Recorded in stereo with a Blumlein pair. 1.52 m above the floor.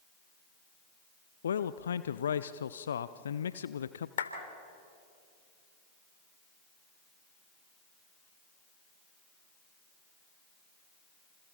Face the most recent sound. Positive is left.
turn(degrees=60)